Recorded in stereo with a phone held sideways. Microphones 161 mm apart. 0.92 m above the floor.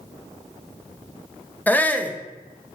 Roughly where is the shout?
Centre.